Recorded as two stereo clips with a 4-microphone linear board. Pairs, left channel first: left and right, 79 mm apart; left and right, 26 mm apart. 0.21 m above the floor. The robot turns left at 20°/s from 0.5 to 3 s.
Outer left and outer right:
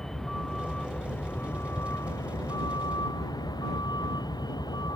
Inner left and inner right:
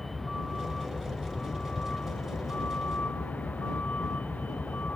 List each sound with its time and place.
0.0 s a vehicle: 175° left; by 5.0 s 125° left